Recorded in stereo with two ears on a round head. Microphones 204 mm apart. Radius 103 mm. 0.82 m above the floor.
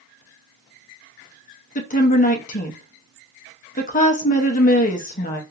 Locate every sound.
1.8 s a woman speaking: 35° left (ahead or behind), 0.7 m